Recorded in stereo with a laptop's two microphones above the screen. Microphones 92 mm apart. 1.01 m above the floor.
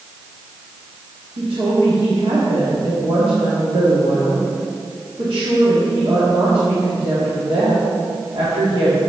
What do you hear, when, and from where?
1.4 s a woman speaking: 80° right, 1.9 m